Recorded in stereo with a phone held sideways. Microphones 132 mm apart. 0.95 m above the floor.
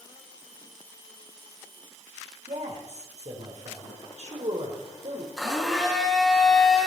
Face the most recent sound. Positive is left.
turn(degrees=0)  # may be behind; listen again after turning